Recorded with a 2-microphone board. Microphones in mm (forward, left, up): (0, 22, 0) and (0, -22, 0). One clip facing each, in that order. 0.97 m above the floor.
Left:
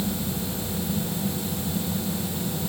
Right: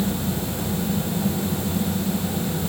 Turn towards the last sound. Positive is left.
No sound to turn to.